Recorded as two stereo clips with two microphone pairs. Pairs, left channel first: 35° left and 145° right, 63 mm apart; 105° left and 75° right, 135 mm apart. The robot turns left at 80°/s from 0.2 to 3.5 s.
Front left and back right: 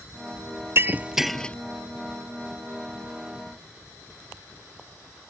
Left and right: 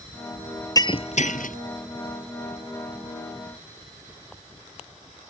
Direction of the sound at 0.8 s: 170° left.